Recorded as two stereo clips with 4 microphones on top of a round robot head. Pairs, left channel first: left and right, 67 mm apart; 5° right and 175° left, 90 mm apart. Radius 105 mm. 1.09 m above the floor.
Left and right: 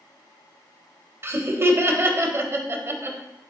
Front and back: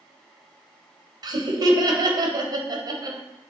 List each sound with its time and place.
1.2 s laughter: 140° right, 1.2 m